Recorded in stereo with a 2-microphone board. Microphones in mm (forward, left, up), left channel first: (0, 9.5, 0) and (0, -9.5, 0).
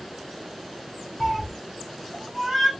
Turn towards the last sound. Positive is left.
turn(degrees=-5)  # may be behind; listen again after turning